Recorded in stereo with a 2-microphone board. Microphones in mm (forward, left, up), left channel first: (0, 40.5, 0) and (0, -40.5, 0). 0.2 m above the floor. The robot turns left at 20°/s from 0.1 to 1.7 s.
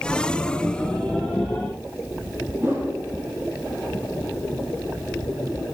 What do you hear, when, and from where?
2.6 s a whoosh: 30° right (ahead or behind), 3 m